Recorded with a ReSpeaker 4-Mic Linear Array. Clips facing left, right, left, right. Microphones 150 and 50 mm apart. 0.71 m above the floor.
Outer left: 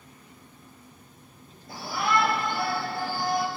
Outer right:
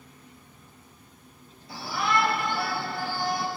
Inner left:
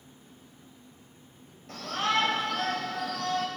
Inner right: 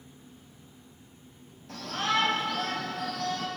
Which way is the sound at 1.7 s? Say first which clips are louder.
Outer left 1 dB, inner left 1 dB; 55° left (ahead or behind).